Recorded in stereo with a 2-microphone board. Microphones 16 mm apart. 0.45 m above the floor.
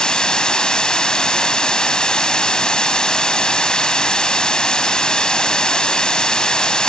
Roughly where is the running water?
Left.